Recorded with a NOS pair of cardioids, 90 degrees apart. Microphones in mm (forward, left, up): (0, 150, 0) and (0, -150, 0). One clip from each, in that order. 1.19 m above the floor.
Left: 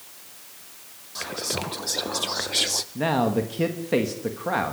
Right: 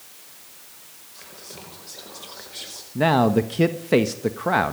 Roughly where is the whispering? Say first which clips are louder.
Left 13 dB; ahead left.